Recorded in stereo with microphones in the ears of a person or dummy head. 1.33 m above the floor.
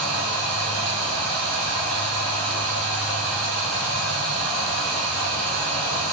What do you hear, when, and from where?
0.0 s running water: 5° left (ahead or behind), 0.8 m